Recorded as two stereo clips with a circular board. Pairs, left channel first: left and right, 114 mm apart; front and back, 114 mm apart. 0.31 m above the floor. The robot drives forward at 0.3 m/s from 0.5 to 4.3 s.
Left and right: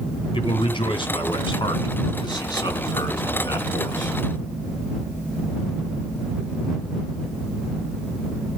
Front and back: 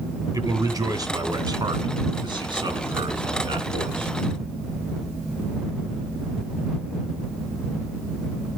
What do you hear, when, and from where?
0.3 s a man speaking: 130° left, 2.5 m; by 4.1 s 145° left, 3 m